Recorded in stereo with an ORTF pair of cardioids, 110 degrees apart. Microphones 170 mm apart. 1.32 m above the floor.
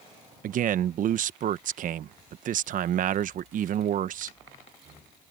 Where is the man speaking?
50° right.